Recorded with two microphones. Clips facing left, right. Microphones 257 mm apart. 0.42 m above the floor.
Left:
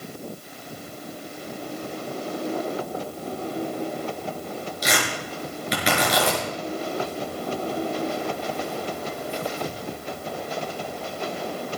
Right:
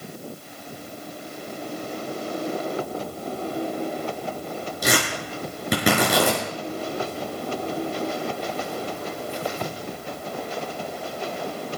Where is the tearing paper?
50° right (ahead or behind), 5.5 m.